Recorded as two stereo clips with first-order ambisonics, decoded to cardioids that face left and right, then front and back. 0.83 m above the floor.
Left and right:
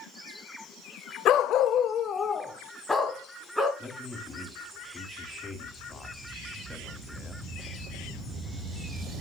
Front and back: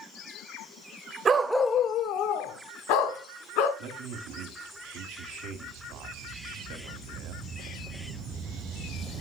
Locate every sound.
1.2 s a dog barking: 125° left, 0.7 m; by 3.7 s straight ahead, 2.5 m
3.8 s a man speaking: 165° left, 1.7 m